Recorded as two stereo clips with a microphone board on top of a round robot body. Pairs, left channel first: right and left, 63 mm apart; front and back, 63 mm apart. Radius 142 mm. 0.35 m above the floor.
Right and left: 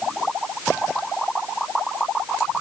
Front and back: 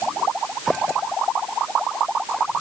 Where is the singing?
I don't hear singing.